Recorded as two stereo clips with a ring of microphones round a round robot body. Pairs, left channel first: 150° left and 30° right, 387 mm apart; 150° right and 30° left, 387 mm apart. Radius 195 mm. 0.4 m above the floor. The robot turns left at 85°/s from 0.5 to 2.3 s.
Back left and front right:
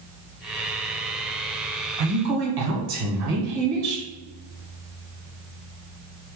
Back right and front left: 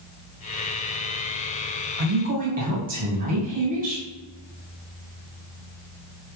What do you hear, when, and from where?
2.0 s a woman speaking: 10° right, 1.7 m; by 4.0 s 35° right, 1.7 m